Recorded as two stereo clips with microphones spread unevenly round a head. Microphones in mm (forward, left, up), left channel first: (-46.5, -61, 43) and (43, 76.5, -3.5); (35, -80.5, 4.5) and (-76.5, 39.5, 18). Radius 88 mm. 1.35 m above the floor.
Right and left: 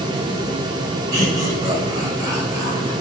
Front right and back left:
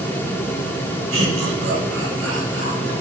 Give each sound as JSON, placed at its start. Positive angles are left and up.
{"t": 1.1, "sound": "laughter", "azimuth_deg": 125, "distance_m": 7.0}